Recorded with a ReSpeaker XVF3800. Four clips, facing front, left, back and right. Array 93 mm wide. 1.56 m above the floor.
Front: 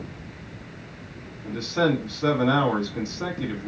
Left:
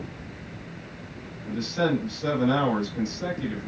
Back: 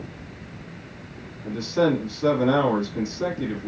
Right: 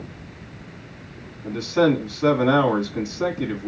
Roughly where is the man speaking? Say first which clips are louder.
Right 7 dB, back 2 dB; right.